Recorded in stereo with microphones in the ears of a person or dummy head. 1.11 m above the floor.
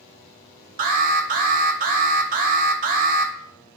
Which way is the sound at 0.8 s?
40° right (ahead or behind).